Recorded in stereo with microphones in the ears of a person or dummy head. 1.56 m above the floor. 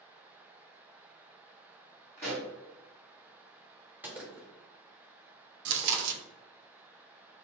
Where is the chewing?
65° right (ahead or behind), 0.5 m.